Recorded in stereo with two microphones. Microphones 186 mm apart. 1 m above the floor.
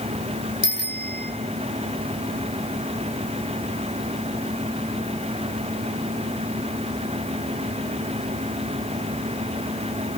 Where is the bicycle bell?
70° left (ahead or behind), 3 m.